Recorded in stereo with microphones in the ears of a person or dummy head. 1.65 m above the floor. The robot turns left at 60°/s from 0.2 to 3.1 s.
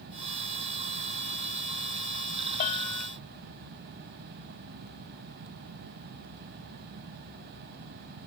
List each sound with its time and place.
2.6 s a bell: 45° left (ahead or behind); by 3.1 s 15° left (ahead or behind)